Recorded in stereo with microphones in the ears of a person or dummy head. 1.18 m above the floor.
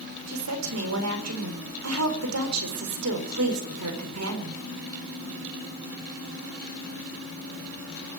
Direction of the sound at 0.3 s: 80° right.